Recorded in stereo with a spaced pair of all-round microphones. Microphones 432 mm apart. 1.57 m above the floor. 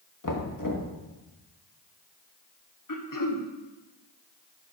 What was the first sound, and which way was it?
Knocking, 45° left (ahead or behind).